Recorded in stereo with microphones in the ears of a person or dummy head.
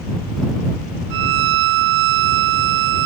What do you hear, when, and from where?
1.1 s a violin: 60° right (ahead or behind)